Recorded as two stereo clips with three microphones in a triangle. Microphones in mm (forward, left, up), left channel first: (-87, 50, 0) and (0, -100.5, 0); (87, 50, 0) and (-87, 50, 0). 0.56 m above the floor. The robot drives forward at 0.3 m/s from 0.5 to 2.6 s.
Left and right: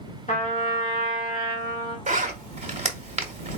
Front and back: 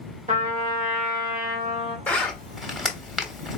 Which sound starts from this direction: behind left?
A trumpet, at 0.3 s.